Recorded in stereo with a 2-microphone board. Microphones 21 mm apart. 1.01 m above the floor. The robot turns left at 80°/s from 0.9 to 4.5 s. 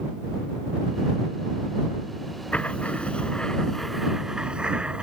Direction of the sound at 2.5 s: 110° left.